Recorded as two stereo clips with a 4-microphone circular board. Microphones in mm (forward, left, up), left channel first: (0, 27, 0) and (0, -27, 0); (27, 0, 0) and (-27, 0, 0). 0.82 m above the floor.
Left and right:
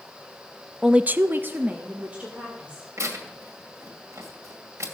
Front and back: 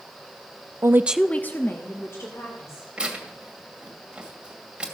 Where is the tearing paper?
105° right, 2 m.